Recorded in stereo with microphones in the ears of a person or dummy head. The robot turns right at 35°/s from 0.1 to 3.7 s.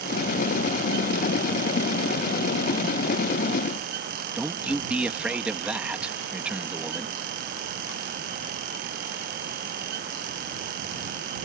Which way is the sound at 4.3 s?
Centre (ahead or behind).